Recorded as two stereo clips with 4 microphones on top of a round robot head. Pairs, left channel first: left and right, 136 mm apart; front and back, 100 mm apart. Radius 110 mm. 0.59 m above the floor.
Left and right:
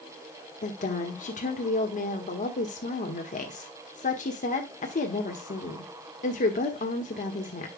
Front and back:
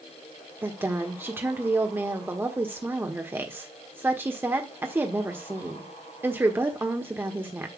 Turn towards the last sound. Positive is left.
turn(degrees=115)